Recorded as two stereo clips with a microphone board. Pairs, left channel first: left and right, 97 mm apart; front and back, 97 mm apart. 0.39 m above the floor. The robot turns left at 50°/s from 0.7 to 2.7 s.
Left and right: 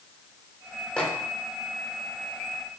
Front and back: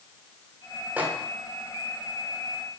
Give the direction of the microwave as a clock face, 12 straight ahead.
7 o'clock.